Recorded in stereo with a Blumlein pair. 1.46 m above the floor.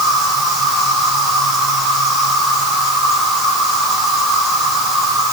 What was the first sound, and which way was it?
An insect, 25° right.